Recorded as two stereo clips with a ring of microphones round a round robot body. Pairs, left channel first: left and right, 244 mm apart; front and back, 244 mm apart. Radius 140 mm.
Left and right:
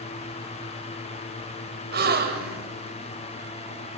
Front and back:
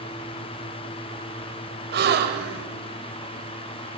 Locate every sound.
1.9 s a gasp: 135° right, 1.7 m